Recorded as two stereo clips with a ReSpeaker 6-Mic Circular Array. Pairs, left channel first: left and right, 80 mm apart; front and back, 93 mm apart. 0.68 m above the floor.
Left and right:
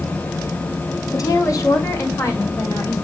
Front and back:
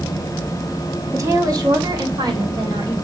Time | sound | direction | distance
1.1 | a woman speaking | 125° left | 1.4 m